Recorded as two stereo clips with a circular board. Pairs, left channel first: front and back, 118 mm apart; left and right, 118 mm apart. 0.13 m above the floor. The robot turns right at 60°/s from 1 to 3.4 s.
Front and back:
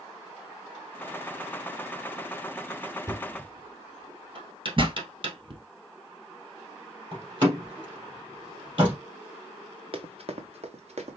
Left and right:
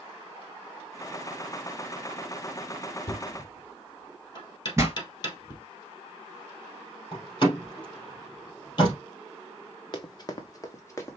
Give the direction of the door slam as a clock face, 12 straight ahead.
7 o'clock.